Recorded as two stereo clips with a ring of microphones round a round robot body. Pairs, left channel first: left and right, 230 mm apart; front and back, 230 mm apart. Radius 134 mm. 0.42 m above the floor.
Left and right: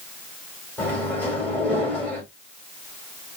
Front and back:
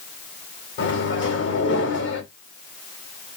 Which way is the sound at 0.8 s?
10° left.